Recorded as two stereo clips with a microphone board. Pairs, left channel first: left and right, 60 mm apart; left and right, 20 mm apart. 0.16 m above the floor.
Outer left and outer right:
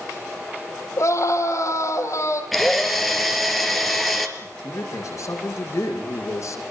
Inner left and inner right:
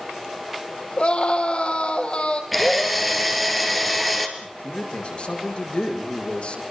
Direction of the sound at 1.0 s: 50° left (ahead or behind).